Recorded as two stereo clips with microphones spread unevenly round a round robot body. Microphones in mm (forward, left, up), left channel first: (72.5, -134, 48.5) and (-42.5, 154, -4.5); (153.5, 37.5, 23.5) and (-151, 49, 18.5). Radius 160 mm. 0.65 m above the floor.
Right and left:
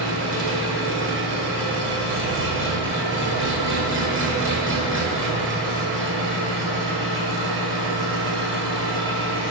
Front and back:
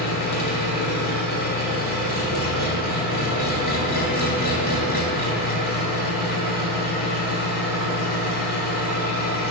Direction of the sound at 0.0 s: 60° left.